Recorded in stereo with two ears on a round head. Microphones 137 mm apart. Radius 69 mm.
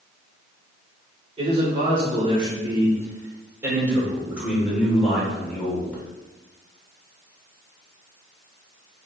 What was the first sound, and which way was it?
A man speaking, 40° right (ahead or behind).